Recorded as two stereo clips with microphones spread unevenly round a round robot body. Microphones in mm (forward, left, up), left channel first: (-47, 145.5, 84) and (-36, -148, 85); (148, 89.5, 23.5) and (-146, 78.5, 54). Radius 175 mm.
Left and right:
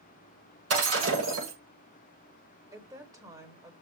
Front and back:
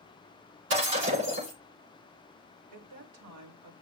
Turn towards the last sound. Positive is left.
turn(degrees=-165)